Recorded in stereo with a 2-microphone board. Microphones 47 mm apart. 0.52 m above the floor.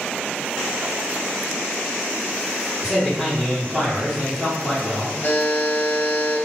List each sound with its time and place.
2.8 s a man speaking: 10° right (ahead or behind), 0.8 m
5.2 s a buzzer: 60° left (ahead or behind), 0.7 m